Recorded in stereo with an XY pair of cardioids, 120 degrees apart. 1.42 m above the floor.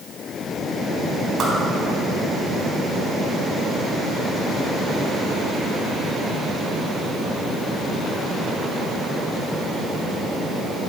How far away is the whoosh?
About 3.5 m.